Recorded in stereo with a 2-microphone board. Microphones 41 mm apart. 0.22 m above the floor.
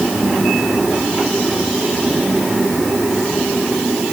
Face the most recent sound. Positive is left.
No sound to turn to.